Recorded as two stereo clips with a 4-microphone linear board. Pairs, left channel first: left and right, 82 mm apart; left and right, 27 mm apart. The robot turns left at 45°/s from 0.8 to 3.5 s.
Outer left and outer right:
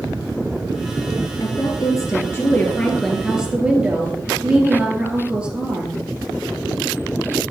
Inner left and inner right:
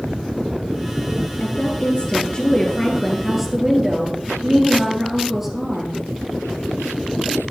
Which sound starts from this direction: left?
A woman speaking, at 1.4 s.